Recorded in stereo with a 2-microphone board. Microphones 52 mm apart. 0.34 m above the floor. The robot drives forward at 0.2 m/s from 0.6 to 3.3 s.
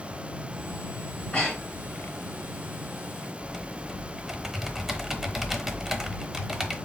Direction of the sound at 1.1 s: 25° left (ahead or behind).